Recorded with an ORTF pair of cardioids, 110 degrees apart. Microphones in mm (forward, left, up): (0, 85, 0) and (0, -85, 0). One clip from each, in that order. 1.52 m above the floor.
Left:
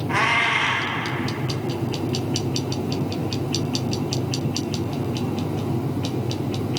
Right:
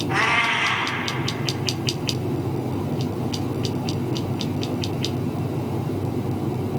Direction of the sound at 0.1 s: 30° left.